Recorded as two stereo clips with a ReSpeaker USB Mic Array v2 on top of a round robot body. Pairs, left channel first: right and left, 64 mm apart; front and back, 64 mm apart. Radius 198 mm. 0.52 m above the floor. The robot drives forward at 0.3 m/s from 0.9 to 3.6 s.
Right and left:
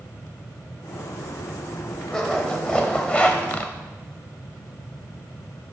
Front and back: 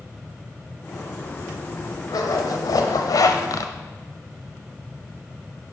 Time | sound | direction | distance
2.1 | a zipper | 15° right | 0.9 m